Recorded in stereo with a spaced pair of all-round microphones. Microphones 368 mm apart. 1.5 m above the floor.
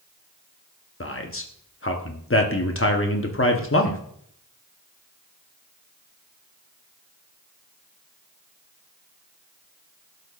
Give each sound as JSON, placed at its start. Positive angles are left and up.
{"t": 1.0, "sound": "a man speaking", "side_deg": 35, "distance_m": 0.8}